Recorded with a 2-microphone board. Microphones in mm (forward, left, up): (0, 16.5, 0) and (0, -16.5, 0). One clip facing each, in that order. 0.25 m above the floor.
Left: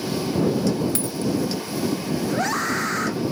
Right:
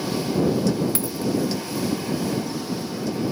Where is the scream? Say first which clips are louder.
Left 4 dB; 80° left.